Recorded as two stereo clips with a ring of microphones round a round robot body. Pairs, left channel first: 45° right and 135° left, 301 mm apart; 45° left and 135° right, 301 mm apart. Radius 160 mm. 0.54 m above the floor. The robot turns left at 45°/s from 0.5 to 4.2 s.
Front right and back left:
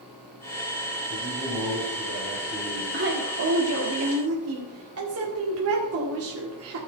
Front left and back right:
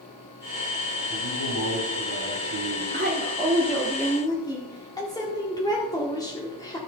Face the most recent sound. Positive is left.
turn(degrees=120)